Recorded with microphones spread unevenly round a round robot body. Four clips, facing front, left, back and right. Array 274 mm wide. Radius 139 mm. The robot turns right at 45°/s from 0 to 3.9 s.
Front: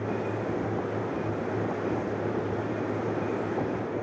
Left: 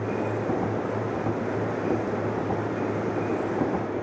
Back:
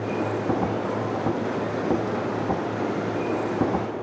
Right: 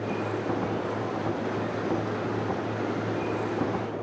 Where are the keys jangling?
No keys jangling in this recording.